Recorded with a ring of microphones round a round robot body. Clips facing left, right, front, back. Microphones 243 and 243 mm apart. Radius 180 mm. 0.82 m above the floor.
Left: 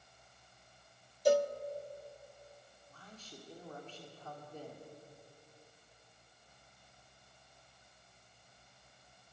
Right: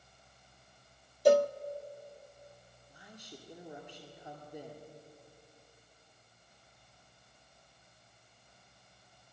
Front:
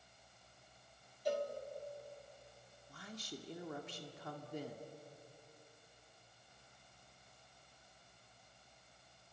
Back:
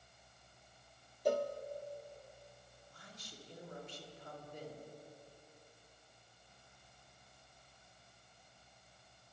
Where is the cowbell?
120° right, 0.5 m.